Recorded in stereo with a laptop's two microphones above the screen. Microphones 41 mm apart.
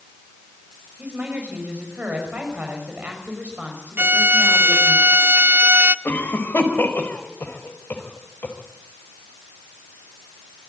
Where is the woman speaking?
40° right (ahead or behind), 5 m.